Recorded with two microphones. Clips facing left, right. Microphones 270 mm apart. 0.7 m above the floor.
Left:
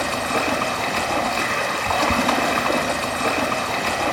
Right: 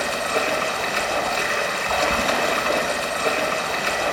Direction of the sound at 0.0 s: 65° left (ahead or behind).